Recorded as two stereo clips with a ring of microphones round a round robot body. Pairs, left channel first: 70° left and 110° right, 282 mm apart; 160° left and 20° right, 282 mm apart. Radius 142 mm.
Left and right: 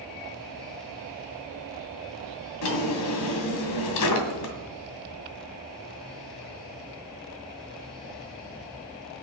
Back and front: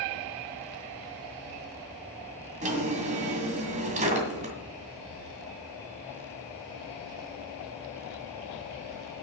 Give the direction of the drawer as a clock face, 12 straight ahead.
11 o'clock.